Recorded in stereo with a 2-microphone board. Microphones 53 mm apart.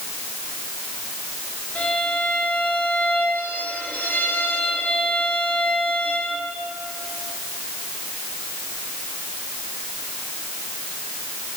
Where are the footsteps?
No footsteps in this recording.